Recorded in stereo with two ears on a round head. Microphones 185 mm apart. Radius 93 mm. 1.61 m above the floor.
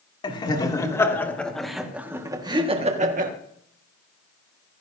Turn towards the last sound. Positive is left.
turn(degrees=-45)  # may be behind; listen again after turning